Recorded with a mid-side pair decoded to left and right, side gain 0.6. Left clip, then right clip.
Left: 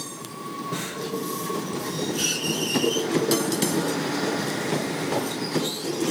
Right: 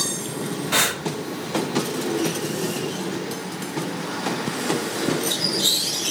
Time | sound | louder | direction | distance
0.7 | breathing | right 13 dB | 70° right | 1.3 m